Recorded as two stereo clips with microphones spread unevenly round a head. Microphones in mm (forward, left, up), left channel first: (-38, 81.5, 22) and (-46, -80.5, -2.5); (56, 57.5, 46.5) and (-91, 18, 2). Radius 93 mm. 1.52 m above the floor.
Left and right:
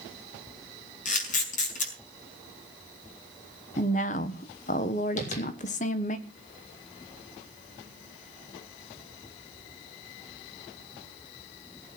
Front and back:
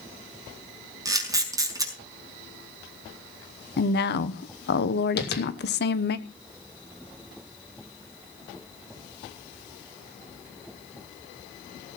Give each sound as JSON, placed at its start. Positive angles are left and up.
{"t": 1.1, "sound": "a camera shutter", "azimuth_deg": 125, "distance_m": 5.5}
{"t": 3.8, "sound": "a woman speaking", "azimuth_deg": 30, "distance_m": 1.3}
{"t": 5.2, "sound": "tapping", "azimuth_deg": 30, "distance_m": 3.0}